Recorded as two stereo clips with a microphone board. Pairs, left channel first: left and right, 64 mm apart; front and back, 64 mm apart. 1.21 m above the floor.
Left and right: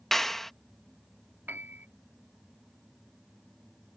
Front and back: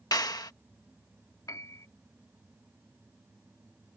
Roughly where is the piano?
Ahead right.